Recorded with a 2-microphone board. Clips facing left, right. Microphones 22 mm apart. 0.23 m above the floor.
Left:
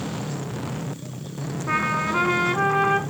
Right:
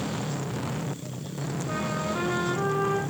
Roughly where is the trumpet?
Left.